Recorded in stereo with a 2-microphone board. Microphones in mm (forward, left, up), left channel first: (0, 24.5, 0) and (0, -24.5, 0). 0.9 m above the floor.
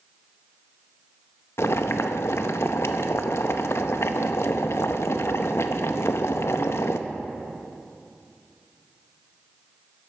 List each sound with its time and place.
1.6 s boiling: 65° left (ahead or behind), 0.6 m